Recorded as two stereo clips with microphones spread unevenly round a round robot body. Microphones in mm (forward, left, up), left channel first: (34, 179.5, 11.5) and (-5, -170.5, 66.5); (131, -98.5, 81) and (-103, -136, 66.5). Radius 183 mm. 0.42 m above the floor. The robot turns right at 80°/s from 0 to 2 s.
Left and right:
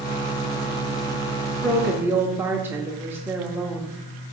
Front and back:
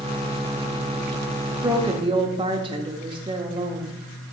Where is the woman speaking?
135° left, 0.8 m; by 4.0 s 165° left, 0.8 m.